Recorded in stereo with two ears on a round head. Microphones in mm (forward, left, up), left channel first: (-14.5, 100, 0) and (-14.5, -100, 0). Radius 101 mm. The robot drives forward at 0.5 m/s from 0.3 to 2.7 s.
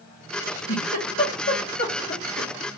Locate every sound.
0.4 s a giggle: 35° left (ahead or behind), 1.6 m; by 2.5 s 45° left (ahead or behind), 1.5 m